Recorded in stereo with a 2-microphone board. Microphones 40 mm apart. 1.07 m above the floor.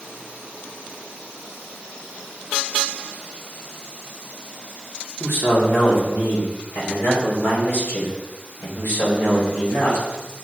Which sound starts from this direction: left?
A man speaking, at 5.2 s.